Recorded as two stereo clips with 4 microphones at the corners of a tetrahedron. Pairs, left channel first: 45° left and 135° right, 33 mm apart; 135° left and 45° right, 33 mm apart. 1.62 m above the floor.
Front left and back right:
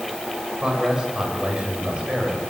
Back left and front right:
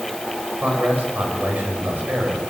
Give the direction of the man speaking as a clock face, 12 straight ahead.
2 o'clock.